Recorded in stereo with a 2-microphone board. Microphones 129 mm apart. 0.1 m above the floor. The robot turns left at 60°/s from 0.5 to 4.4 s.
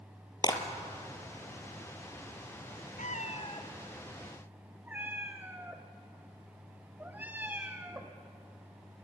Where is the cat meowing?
70° left (ahead or behind), 2.5 m; by 8.2 s 15° right (ahead or behind), 2.5 m.